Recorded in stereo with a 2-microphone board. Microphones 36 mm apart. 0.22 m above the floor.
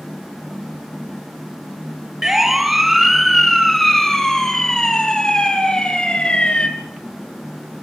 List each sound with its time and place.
2.2 s a siren: 10° right (ahead or behind), 3.5 m; by 6.7 s 30° left (ahead or behind), 4 m